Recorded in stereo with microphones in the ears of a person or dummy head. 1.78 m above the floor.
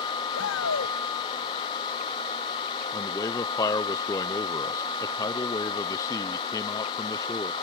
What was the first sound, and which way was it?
A shout, 70° left (ahead or behind).